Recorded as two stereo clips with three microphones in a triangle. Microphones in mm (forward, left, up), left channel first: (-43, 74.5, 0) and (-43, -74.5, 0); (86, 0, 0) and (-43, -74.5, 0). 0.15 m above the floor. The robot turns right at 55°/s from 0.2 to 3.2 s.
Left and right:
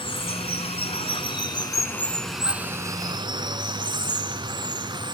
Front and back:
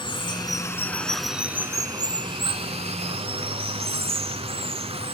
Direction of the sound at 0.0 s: 65° left.